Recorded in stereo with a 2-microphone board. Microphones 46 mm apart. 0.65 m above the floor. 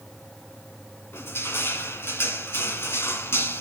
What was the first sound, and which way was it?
Crushing, 75° left (ahead or behind).